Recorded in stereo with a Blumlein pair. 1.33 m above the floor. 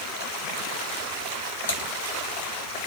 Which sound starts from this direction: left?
Typing on a keyboard, at 1.7 s.